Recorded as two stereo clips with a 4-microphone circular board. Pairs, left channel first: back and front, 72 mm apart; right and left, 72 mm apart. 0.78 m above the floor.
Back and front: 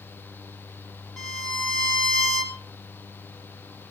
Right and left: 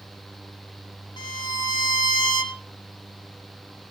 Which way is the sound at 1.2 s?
100° right.